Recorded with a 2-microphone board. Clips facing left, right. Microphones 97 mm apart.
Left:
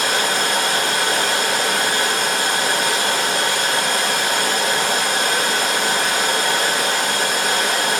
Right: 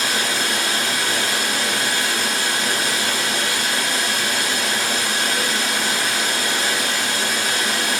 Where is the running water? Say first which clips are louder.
Left 3 dB; 55° left (ahead or behind), 1.3 m.